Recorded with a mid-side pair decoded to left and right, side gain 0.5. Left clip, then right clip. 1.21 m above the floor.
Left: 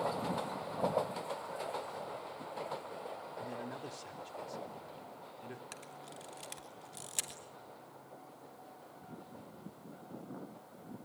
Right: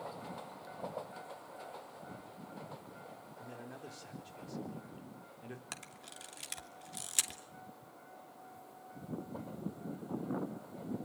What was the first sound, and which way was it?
A man speaking, 25° left.